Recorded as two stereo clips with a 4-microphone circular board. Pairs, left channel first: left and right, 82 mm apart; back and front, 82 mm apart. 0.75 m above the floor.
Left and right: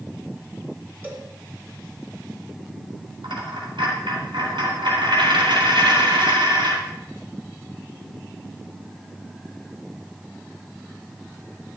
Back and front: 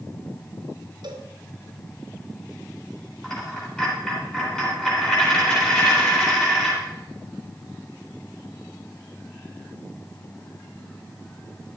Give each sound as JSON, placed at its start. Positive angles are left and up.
{"t": 1.0, "sound": "a cowbell", "azimuth_deg": -25, "distance_m": 1.6}
{"t": 3.2, "sound": "a dropped coin", "azimuth_deg": -100, "distance_m": 4.0}